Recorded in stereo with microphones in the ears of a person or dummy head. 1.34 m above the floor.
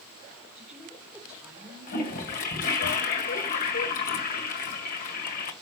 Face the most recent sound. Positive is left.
turn(degrees=45)  # may be behind; listen again after turning